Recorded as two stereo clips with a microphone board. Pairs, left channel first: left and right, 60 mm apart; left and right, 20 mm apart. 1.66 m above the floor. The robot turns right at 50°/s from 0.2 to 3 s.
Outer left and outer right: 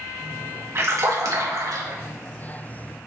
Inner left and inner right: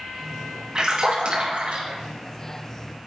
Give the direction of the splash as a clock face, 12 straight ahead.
5 o'clock.